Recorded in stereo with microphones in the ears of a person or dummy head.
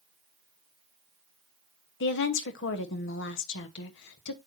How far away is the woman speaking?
About 1.3 m.